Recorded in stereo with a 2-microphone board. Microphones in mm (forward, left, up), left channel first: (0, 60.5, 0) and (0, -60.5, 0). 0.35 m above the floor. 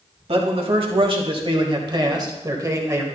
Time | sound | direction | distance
0.3 | a man speaking | 55° right (ahead or behind) | 1.8 m